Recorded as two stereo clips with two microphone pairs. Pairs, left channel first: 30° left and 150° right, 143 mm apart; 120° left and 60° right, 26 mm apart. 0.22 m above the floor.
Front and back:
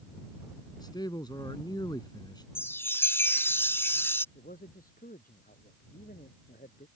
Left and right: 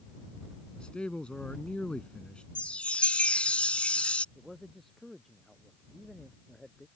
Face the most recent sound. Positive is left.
turn(degrees=40)